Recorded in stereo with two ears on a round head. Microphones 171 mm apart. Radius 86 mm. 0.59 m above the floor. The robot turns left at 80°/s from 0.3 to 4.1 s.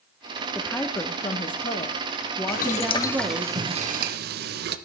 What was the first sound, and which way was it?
A woman speaking, centre (ahead or behind).